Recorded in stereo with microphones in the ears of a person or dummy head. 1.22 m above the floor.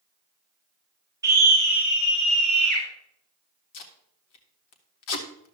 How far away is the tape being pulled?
About 1.6 m.